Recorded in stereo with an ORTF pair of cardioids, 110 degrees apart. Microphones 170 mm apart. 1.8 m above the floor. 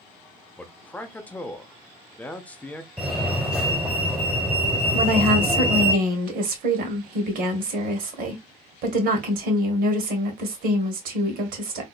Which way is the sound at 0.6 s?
10° left.